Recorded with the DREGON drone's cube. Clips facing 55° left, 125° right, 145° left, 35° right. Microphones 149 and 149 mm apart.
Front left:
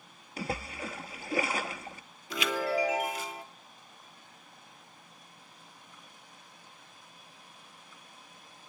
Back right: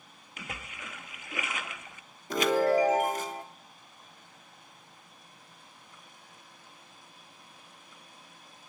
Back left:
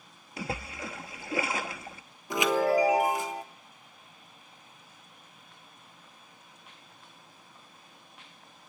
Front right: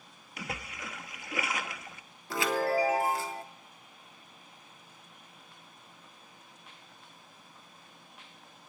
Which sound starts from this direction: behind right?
A chime, at 2.3 s.